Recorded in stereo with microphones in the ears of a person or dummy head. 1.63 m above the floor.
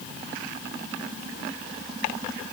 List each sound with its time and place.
Only background noise.